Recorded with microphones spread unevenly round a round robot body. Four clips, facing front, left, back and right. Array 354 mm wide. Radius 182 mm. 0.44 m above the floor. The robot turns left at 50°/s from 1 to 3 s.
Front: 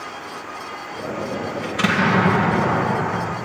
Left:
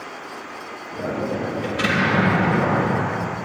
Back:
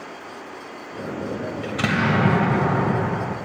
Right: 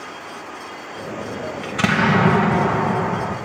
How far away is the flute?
I don't hear a flute.